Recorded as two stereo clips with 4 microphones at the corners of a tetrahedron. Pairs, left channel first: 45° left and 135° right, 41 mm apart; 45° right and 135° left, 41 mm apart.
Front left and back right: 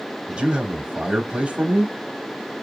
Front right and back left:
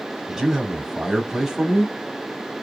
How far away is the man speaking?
About 1.0 m.